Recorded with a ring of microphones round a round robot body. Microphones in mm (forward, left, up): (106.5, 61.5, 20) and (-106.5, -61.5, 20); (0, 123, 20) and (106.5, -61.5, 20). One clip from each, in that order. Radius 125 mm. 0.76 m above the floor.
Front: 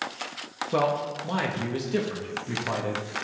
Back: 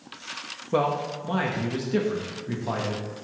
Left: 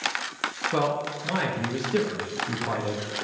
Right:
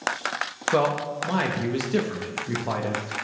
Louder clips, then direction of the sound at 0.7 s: Back 1 dB, right 6 dB; 45° right.